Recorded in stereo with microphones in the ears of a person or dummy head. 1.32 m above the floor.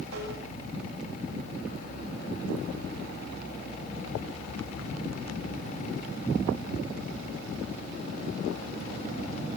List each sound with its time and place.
0.1 s tapping: 85° right, 10 m